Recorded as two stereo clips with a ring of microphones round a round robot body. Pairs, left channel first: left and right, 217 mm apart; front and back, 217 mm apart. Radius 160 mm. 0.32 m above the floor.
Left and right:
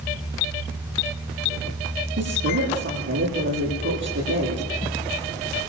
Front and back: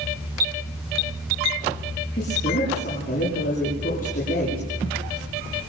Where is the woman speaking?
65° right, 10 m.